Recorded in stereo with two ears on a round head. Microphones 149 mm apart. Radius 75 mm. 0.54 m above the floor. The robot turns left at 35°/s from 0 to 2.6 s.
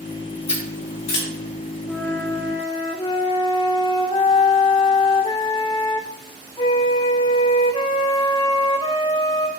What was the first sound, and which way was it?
Scissors, 45° left (ahead or behind).